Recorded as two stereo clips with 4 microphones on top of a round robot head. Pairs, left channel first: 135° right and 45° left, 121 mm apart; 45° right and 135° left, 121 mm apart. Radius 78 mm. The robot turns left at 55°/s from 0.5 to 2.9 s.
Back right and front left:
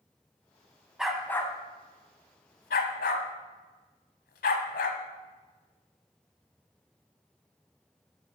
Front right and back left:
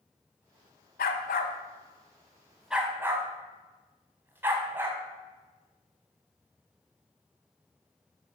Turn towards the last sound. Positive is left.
turn(degrees=-150)